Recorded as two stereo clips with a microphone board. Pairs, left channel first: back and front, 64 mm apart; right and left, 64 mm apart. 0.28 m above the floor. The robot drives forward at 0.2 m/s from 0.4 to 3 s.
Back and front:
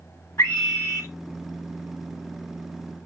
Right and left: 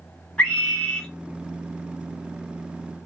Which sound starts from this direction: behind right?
A scream, at 0.4 s.